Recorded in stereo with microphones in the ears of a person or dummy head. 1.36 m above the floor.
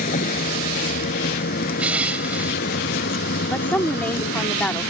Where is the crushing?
10° right (ahead or behind).